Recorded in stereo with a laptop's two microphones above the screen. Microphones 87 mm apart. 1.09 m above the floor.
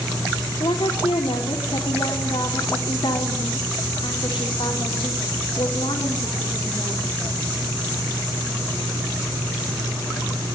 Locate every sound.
0.6 s a woman speaking: 75° left (ahead or behind), 3.5 m